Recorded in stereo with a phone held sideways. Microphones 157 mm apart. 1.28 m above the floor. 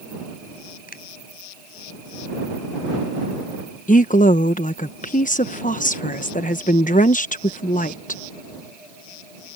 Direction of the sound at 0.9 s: 65° left (ahead or behind).